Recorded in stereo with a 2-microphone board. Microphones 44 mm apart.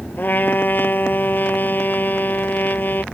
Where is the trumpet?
45° left (ahead or behind).